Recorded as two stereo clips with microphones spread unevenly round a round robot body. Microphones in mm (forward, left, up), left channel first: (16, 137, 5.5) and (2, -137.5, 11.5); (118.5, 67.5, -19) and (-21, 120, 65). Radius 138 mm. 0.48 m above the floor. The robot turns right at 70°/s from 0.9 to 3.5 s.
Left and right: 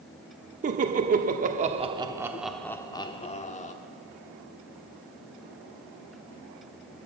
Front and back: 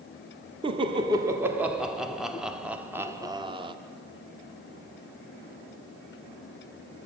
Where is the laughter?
110° right, 0.9 m; by 3.8 s 70° left, 0.9 m.